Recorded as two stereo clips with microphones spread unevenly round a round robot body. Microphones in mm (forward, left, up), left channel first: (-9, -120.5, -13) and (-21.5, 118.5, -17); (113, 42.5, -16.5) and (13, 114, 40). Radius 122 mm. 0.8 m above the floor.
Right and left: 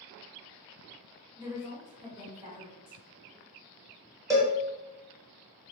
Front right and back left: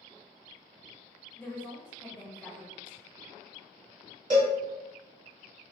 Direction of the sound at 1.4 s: 20° left.